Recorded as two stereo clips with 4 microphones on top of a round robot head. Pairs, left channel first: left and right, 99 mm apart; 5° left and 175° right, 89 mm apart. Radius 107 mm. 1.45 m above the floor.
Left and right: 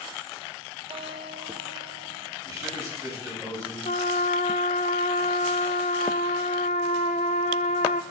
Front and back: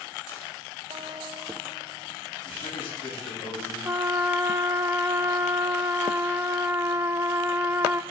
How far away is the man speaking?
About 7.5 m.